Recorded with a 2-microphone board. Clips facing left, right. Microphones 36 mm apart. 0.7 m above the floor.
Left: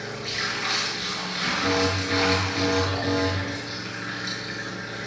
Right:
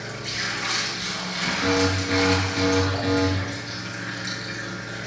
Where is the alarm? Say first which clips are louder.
Right 3 dB; 15° right (ahead or behind), 8.5 m.